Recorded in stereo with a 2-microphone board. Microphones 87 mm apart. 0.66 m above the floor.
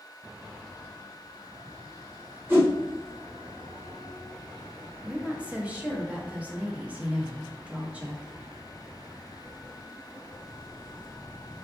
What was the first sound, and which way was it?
A whoosh, 25° right (ahead or behind).